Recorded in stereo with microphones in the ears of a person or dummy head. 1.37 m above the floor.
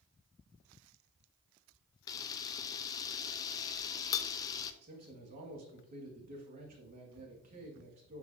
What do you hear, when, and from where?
2.1 s a camera shutter: 25° left (ahead or behind), 0.7 m
4.8 s a man speaking: 45° right (ahead or behind), 2.0 m